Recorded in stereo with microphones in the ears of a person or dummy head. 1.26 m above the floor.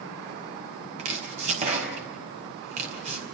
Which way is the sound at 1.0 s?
40° right (ahead or behind).